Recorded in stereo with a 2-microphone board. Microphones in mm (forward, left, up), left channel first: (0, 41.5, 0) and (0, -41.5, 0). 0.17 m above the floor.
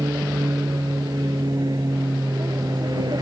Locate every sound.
0.0 s an aircraft: 55° right (ahead or behind)